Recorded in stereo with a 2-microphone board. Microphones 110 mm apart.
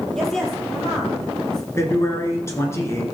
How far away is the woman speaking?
About 3.5 m.